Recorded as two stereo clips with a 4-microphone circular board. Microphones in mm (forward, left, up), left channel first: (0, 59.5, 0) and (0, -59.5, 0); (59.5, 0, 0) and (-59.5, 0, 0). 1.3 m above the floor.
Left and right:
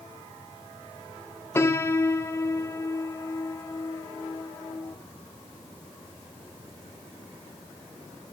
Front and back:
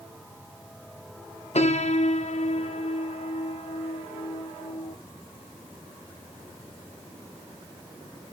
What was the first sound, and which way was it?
A piano, 20° left.